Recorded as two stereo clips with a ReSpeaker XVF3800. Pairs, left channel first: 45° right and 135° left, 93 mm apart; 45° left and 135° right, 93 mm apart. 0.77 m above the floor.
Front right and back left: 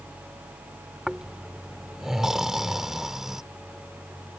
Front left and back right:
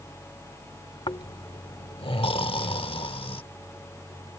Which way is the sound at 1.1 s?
50° left.